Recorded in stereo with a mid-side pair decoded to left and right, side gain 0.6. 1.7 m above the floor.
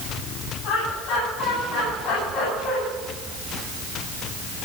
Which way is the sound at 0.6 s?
70° left.